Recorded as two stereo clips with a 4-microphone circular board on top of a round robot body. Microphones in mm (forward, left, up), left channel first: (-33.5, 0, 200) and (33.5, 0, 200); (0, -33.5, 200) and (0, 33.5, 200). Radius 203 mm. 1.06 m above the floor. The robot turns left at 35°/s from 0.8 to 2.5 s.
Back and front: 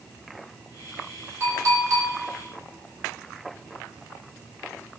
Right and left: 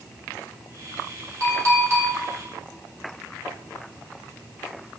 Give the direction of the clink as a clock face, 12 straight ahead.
10 o'clock.